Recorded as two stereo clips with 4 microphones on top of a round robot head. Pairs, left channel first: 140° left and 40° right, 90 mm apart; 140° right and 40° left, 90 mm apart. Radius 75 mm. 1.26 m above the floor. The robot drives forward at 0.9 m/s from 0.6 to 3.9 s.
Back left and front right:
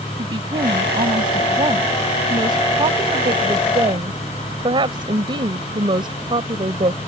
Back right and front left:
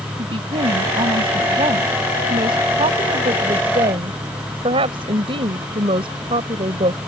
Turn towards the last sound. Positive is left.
turn(degrees=5)